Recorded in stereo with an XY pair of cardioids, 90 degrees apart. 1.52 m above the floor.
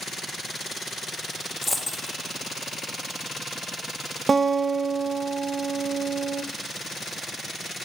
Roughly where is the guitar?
Ahead right.